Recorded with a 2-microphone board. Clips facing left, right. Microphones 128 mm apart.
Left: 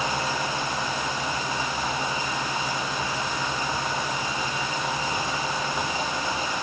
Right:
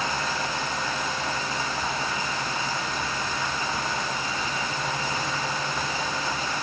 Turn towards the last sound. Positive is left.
No sound to turn to.